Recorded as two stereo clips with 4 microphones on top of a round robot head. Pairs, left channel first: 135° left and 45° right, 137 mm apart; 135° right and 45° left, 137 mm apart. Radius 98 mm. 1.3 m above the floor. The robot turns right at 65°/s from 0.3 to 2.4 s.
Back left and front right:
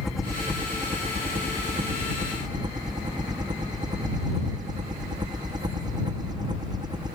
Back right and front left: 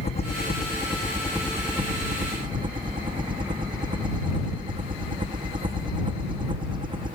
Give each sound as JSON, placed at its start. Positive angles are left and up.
{"t": 0.0, "sound": "a helicopter", "azimuth_deg": -130}